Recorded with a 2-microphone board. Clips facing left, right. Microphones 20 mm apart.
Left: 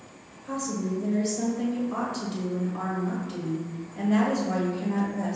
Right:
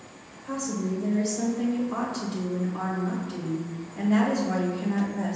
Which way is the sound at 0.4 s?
15° right (ahead or behind).